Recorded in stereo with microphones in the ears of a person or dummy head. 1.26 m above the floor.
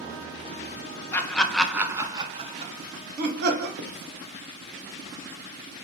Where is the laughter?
15° left (ahead or behind), 1.0 m; by 3.7 s 55° right (ahead or behind), 1.3 m.